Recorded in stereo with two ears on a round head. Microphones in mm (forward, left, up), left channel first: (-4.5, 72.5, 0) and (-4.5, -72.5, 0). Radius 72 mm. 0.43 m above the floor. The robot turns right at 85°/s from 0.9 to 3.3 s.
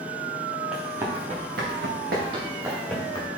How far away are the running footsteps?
About 3 m.